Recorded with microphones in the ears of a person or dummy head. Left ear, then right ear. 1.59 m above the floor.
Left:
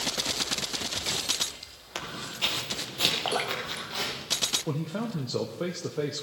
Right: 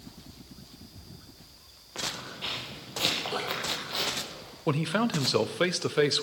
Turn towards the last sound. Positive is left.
turn(degrees=-40)  # may be behind; listen again after turning